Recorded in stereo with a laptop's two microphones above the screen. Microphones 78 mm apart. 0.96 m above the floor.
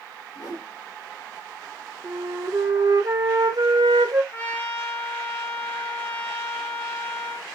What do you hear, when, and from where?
0.3 s a whoosh: 45° left (ahead or behind), 2 m
2.0 s a flute: 50° right (ahead or behind), 1.1 m
4.3 s a trumpet: 25° left (ahead or behind), 0.8 m